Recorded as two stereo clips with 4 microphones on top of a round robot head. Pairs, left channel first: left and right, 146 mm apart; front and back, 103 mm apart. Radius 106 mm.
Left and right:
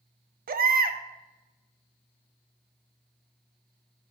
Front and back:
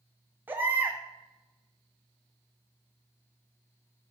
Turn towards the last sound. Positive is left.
turn(degrees=-105)